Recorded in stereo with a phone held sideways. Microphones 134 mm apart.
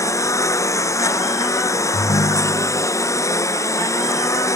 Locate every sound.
0.0 s a lawn mower: 25° left (ahead or behind)
1.9 s a ringtone: 55° left (ahead or behind)